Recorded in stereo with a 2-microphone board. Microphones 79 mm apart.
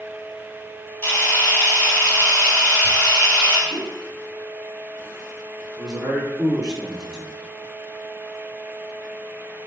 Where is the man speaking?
10° right (ahead or behind), 1.6 m.